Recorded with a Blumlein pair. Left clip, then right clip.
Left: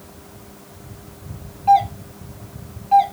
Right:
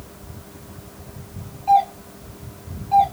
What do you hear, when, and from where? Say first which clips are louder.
1.7 s a doorbell: left 2 dB; 65° left, 0.9 m